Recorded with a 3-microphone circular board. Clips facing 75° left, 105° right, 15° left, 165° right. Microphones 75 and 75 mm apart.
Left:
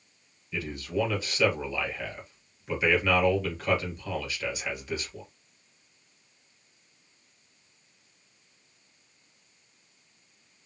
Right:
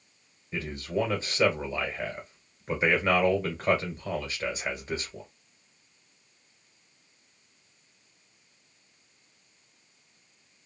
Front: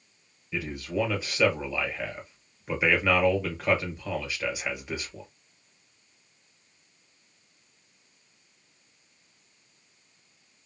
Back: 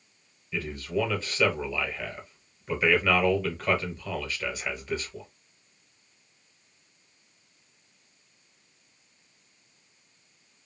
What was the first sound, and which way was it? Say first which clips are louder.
A man speaking: even, even; 60° right.